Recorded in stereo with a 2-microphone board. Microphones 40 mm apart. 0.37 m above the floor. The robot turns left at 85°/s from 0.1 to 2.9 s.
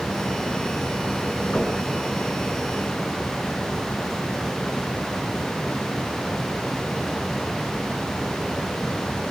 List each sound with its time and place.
1.5 s knocking: 50° left (ahead or behind), 4.5 m; by 1.8 s 25° left (ahead or behind), 4.5 m